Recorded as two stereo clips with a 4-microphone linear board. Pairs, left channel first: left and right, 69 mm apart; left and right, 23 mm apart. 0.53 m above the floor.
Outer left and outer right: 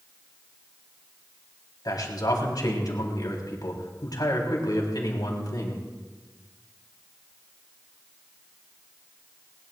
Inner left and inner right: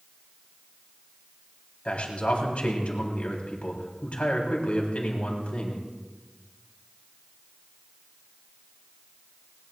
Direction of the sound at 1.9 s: 65° left (ahead or behind).